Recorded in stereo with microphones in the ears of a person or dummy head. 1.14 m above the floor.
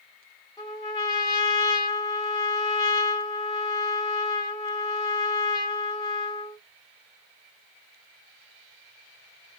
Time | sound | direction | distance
0.6 | a trumpet | 15° left (ahead or behind) | 0.7 m